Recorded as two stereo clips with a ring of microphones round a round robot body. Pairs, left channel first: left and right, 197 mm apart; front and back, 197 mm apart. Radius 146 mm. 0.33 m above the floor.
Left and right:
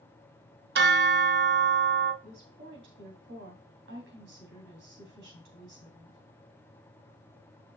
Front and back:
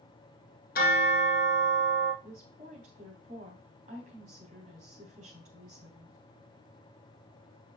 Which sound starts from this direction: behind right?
A woman speaking, at 2.2 s.